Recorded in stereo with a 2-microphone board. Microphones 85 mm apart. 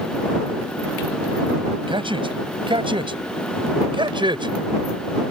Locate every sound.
1.9 s a man speaking: 90° right; by 4.5 s 70° right (ahead or behind)